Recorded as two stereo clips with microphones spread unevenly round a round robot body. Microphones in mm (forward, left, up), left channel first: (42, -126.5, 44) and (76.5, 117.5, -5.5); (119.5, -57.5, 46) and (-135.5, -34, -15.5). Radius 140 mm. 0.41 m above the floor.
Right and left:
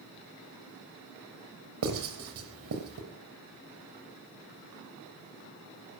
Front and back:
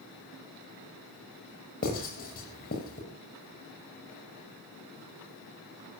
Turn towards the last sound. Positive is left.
turn(degrees=60)